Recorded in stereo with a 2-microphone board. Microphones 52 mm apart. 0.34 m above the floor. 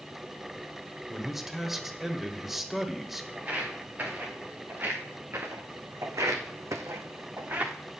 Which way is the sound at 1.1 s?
5° right (ahead or behind).